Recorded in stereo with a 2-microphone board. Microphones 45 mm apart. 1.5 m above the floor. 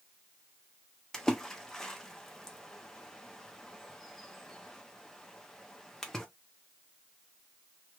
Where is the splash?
10° left (ahead or behind), 0.7 m.